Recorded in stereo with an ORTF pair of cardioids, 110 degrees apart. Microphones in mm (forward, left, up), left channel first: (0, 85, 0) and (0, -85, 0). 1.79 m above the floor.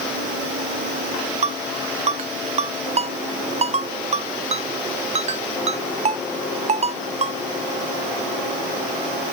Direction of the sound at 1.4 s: 40° right.